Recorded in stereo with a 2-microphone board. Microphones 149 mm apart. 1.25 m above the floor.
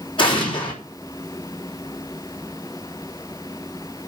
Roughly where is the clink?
No clink in this recording.